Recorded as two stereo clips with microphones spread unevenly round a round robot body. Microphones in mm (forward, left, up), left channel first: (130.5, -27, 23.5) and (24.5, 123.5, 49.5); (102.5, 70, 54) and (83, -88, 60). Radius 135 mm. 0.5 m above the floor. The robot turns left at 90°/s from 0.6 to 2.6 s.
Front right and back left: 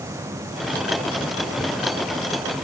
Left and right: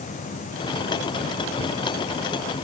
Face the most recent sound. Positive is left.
No sound to turn to.